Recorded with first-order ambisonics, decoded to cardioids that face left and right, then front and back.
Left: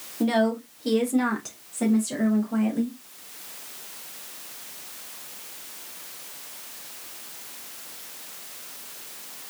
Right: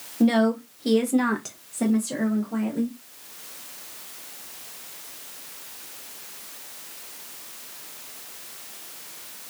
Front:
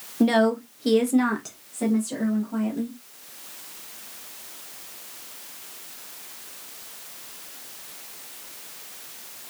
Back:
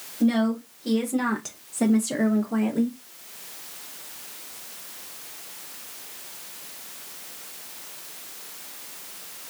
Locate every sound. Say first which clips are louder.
0.2 s a woman speaking: right 1 dB, front 5 dB; 15° right, 0.8 m; by 3.0 s 175° right, 1.0 m